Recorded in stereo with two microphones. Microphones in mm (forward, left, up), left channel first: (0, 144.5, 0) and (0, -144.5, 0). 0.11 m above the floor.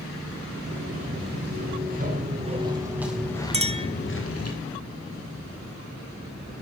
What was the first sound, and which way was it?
Footsteps, 40° right (ahead or behind).